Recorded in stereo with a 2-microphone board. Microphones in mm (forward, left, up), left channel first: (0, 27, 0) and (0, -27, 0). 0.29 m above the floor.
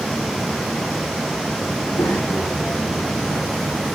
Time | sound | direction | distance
1.7 | a child speaking | 85° left | 9 m